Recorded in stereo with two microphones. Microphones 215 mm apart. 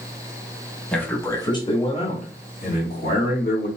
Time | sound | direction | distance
0.9 | a man speaking | 5° left (ahead or behind) | 1.3 m